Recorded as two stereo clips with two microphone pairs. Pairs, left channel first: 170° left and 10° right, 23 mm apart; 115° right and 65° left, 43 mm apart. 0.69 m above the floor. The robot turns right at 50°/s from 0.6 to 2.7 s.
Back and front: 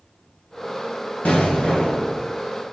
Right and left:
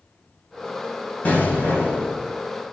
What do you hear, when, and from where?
1.2 s an explosion: 170° right, 2.5 m; by 2.2 s 125° right, 2.5 m